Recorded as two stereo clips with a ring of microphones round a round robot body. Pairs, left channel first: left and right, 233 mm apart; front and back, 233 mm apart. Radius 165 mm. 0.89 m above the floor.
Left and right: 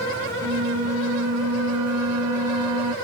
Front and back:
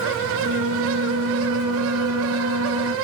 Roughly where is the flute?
Behind right.